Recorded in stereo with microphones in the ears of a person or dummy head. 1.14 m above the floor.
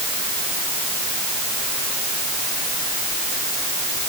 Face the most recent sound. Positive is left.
No sound to turn to.